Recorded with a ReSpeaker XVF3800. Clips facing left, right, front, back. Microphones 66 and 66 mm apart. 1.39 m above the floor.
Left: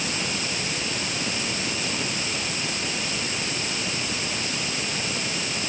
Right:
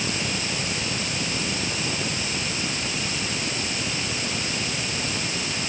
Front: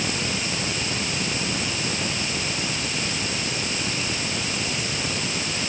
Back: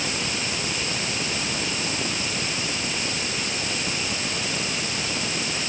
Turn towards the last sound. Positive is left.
No sound to turn to.